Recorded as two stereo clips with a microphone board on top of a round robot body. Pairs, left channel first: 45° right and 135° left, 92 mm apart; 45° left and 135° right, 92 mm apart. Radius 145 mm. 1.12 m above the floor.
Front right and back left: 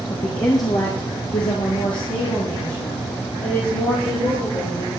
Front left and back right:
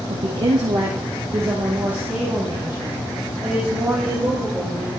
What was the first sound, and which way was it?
A woman speaking, 105° right.